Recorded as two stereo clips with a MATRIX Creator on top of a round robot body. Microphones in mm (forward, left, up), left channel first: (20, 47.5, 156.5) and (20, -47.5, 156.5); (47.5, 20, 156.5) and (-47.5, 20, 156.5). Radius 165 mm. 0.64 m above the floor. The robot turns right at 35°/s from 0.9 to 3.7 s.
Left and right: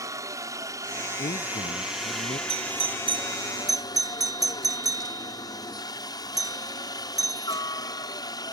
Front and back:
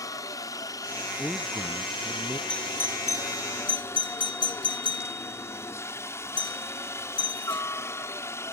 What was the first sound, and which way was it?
A helicopter, 45° right.